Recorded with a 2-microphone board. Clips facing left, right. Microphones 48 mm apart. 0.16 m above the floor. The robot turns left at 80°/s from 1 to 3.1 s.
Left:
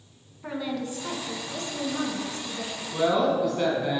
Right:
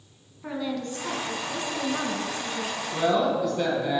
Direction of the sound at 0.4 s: 5° left.